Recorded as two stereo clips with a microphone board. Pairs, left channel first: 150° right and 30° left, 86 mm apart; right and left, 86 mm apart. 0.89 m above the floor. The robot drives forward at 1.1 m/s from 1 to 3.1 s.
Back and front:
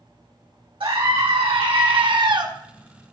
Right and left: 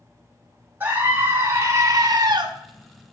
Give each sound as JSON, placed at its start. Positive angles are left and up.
{"t": 0.8, "sound": "a scream", "azimuth_deg": 25, "distance_m": 2.5}